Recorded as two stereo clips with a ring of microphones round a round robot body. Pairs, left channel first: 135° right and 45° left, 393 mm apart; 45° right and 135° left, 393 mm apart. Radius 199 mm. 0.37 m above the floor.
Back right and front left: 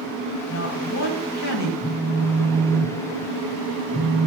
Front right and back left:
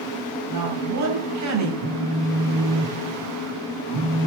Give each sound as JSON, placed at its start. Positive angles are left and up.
{"t": 0.5, "sound": "a woman speaking", "azimuth_deg": 180, "distance_m": 2.5}
{"t": 1.8, "sound": "a phone buzzing", "azimuth_deg": 135, "distance_m": 1.1}